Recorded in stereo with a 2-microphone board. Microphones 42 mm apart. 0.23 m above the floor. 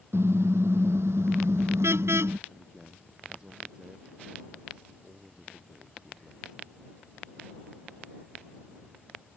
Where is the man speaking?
20° right (ahead or behind).